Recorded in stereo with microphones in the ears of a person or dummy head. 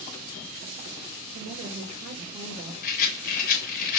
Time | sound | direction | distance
1.3 | a woman speaking | 30° right (ahead or behind) | 3.5 m
2.8 | a rattle | 50° left (ahead or behind) | 1.0 m